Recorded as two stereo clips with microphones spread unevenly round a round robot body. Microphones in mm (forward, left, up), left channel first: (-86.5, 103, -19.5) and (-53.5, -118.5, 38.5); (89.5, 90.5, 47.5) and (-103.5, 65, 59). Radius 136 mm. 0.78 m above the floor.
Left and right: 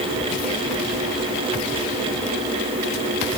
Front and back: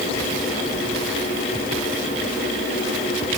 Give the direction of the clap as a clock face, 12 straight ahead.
I don't hear a clap.